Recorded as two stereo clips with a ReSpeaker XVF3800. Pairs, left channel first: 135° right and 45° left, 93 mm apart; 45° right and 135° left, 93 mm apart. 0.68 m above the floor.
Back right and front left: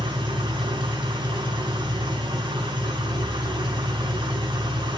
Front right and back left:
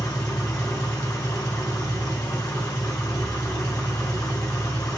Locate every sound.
0.0 s an engine running: 10° left, 3.5 m